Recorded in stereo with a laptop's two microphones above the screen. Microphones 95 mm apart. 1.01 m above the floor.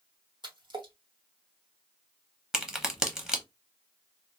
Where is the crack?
5° right (ahead or behind), 0.8 m.